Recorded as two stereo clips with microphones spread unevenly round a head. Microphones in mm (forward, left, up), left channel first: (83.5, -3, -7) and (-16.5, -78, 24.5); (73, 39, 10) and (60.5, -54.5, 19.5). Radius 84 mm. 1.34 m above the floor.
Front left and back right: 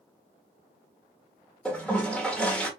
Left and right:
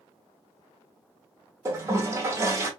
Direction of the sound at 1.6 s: 55° right.